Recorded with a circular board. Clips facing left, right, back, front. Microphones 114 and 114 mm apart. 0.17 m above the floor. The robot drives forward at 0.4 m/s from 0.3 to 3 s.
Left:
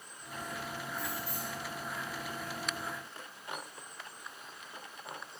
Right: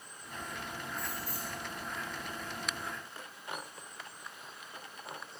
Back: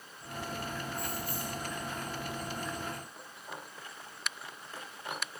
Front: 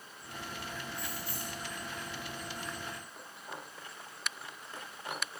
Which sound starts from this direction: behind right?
Keys jangling, at 0.9 s.